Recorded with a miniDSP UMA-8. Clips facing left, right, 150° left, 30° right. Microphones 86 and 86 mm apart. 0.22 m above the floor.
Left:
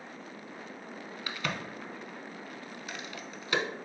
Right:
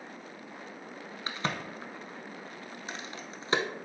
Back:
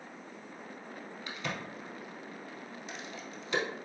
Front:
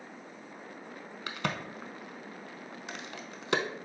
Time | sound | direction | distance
1.3 | a crack | 35° right | 0.6 m